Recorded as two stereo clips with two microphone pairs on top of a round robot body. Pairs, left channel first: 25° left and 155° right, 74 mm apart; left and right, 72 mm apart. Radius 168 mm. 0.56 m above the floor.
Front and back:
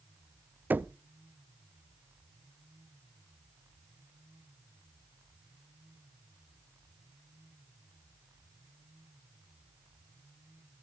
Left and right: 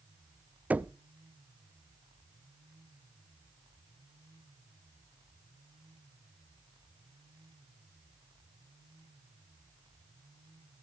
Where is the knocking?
120° right, 0.5 m.